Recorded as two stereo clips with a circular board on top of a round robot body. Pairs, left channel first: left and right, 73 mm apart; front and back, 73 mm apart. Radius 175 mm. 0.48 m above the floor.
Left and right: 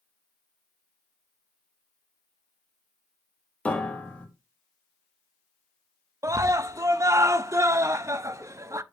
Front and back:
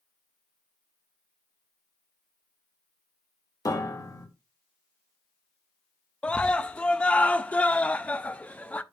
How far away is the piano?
About 1.9 m.